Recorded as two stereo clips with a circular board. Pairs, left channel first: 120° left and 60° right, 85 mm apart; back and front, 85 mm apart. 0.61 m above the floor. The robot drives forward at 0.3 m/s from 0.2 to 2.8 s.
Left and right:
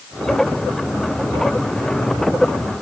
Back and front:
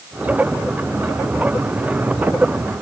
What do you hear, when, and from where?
Only background noise.